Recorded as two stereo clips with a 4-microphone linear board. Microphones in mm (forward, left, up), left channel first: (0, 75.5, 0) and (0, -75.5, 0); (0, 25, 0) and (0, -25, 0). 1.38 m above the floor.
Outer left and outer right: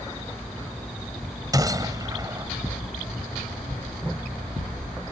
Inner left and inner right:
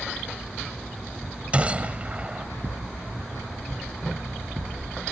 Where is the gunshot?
25° right (ahead or behind).